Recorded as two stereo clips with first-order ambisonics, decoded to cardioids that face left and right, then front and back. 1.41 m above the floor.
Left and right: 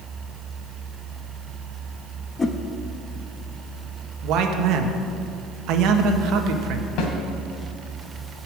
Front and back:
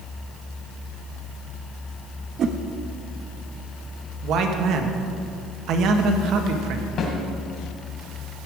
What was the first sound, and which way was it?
A whoosh, 155° left.